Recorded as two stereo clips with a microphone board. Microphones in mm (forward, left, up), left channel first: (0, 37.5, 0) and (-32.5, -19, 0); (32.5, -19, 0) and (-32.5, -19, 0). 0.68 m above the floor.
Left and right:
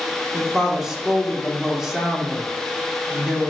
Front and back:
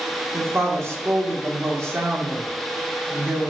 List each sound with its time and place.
0.3 s a woman speaking: 160° left, 1.0 m